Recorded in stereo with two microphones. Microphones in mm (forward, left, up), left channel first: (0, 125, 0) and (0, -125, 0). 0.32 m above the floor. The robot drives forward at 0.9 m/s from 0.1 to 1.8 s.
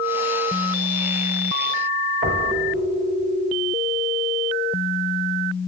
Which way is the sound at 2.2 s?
55° right (ahead or behind).